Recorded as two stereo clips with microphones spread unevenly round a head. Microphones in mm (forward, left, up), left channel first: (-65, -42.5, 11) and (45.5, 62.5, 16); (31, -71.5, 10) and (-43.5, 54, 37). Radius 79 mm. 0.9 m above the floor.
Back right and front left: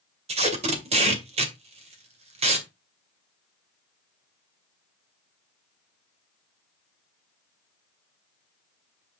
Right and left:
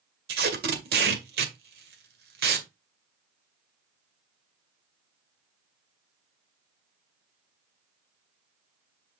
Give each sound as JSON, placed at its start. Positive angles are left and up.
{"t": 0.3, "sound": "tape being pulled", "azimuth_deg": 95, "distance_m": 2.0}